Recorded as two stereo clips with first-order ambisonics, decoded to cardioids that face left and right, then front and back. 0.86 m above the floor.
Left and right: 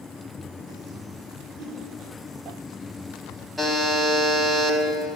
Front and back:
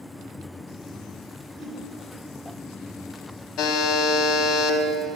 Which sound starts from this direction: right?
A whoosh, at 1.6 s.